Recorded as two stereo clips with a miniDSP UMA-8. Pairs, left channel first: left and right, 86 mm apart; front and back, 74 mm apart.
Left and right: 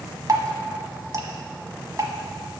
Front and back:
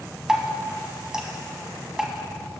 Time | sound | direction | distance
0.3 | dripping | 105° right | 1.0 m